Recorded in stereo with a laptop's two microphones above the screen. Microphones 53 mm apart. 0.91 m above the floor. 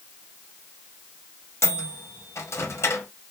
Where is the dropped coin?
I don't hear a dropped coin.